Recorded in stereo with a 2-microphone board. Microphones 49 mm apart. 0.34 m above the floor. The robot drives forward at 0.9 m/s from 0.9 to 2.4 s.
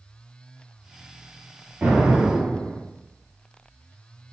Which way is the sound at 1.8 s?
35° right (ahead or behind).